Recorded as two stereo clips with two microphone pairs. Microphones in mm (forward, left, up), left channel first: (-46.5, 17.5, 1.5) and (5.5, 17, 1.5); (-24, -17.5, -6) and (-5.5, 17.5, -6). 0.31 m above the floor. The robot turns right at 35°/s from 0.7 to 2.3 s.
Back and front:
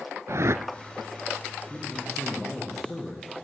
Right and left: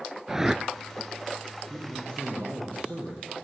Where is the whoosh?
20° right, 0.7 m.